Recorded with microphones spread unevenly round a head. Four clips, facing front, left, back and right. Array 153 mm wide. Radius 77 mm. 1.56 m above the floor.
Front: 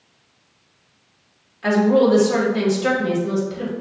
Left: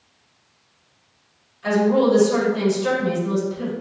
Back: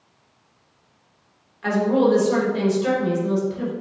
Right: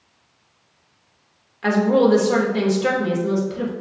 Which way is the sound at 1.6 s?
75° right.